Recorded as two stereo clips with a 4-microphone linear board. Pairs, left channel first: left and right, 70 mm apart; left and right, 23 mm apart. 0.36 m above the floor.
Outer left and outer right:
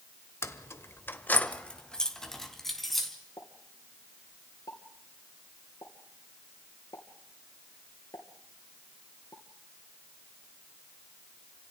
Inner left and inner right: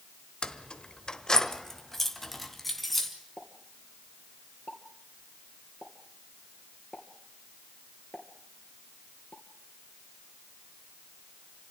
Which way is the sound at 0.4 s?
35° left (ahead or behind).